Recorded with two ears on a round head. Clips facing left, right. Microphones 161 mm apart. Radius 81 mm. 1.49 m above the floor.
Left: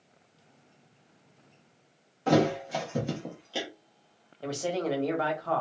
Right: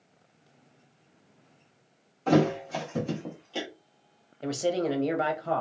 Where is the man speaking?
25° right (ahead or behind), 0.8 m.